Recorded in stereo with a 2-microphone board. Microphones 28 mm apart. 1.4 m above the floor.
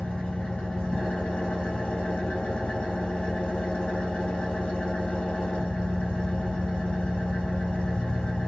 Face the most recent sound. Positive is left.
turn(degrees=45)  # may be behind; listen again after turning